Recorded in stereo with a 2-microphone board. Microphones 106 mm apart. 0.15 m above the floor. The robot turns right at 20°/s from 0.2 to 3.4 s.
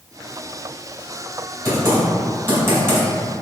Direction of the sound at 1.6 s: 25° right (ahead or behind).